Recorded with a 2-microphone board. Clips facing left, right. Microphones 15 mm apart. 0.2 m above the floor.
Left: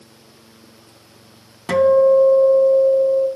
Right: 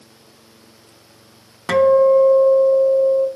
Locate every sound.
1.7 s a guitar: 30° right (ahead or behind), 0.5 m